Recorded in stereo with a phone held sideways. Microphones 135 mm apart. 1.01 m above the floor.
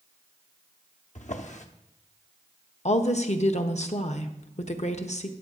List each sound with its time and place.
1.1 s a drawer: 65° left (ahead or behind), 0.9 m
2.9 s a woman speaking: 55° left (ahead or behind), 1.0 m